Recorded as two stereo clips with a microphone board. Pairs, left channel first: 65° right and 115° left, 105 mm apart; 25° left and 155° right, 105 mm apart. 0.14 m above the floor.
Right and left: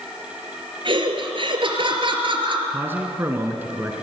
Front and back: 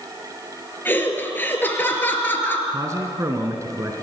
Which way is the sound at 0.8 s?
90° left.